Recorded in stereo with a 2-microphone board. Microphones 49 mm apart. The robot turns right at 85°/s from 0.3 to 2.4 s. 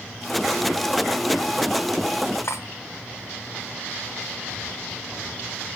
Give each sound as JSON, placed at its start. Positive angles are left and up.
{"t": 2.4, "sound": "cutlery clinking", "side_deg": 65, "distance_m": 1.1}